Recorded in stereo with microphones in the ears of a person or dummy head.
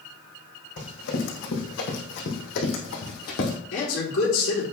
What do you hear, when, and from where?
0.8 s running footsteps: 70° left (ahead or behind), 3.5 m; by 3.6 s 55° left (ahead or behind), 2.5 m
3.7 s a man speaking: 75° left (ahead or behind), 3.5 m